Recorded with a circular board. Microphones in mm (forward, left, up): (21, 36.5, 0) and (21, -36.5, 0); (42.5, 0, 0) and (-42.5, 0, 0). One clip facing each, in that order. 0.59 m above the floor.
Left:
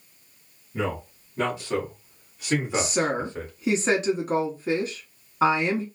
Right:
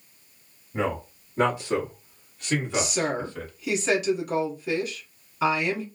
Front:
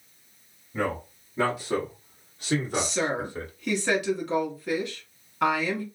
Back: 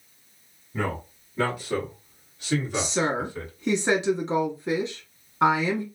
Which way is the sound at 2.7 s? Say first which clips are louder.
Left 2 dB, back 2 dB; 125° left.